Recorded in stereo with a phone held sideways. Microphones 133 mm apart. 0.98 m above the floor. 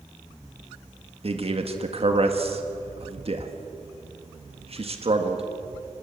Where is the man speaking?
50° right (ahead or behind), 1.9 m.